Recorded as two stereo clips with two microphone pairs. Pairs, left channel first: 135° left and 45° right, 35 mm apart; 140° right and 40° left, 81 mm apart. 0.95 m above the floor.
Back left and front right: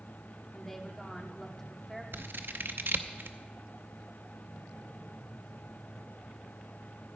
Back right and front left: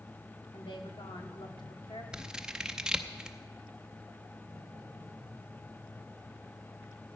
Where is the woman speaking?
145° right, 2 m.